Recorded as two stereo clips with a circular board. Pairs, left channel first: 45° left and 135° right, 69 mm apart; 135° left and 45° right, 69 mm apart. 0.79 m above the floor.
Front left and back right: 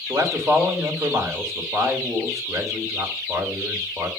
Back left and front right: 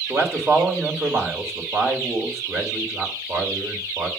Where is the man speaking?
95° right, 2.5 m.